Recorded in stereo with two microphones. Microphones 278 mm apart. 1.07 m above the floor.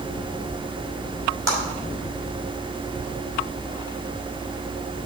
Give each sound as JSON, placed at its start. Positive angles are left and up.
{"t": 1.5, "sound": "a clap", "side_deg": -60, "distance_m": 4.5}